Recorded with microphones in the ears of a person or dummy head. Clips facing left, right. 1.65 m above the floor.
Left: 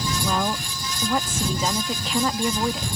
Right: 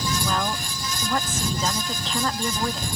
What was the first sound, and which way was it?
A woman speaking, 5° left (ahead or behind).